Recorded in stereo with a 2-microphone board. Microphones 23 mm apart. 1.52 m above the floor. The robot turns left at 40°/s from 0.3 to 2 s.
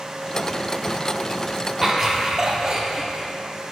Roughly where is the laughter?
Centre.